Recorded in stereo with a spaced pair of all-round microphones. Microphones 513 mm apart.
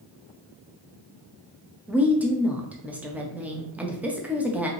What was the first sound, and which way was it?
A woman speaking, 5° right (ahead or behind).